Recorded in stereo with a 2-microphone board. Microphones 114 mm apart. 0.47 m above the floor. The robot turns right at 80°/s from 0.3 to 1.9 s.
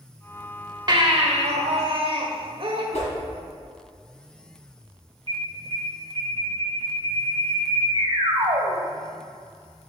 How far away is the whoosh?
About 1.7 m.